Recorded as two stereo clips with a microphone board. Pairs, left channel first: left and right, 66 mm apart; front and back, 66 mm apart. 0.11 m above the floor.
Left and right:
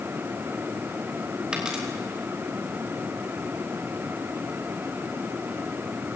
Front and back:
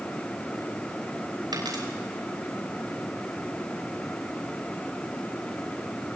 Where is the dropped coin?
165° right, 6 m.